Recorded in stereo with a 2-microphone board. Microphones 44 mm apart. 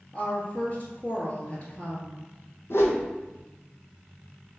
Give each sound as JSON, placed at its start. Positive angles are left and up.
{"t": 0.1, "sound": "a woman speaking", "side_deg": 30, "distance_m": 1.5}
{"t": 2.7, "sound": "a whoosh", "side_deg": 70, "distance_m": 0.8}